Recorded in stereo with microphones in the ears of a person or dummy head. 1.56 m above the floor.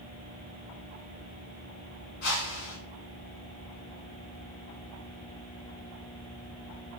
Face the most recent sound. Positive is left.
turn(degrees=50)  # may be behind; listen again after turning